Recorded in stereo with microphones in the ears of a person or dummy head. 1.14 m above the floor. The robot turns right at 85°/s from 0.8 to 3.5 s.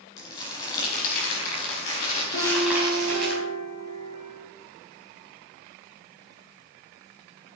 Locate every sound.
0.2 s crumpling: 20° left, 4.5 m; by 3.3 s 125° right, 4.5 m
2.3 s a piano: 120° left, 4 m; by 4.4 s 140° right, 4 m